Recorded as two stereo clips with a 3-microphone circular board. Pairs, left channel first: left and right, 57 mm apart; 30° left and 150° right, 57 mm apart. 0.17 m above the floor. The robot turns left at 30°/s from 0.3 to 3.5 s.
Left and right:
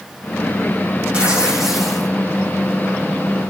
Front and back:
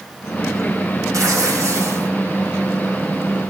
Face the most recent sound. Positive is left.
turn(degrees=130)